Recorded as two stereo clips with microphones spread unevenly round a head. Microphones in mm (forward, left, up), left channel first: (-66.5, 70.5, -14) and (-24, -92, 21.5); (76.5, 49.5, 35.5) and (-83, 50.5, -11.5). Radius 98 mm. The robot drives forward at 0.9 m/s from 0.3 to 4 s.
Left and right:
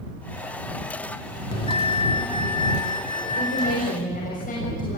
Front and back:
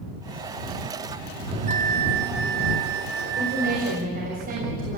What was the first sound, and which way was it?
A bell, 140° left.